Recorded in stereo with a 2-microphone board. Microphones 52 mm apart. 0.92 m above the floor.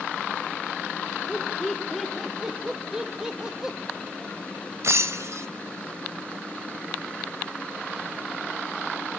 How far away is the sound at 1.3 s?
About 3 m.